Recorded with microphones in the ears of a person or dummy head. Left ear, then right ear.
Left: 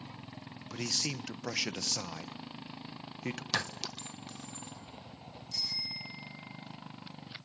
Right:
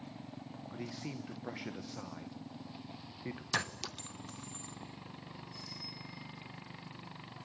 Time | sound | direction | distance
0.7 | a man speaking | 75° left (ahead or behind) | 1.2 m
3.5 | a clink | 5° left (ahead or behind) | 0.5 m
5.5 | a bicycle bell | 85° left | 8 m